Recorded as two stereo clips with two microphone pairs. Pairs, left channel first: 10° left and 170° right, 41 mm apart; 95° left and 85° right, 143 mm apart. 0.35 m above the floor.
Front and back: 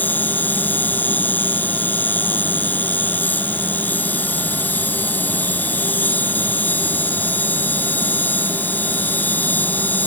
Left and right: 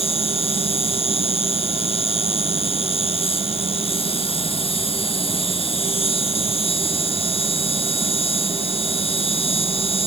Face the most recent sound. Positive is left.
turn(degrees=50)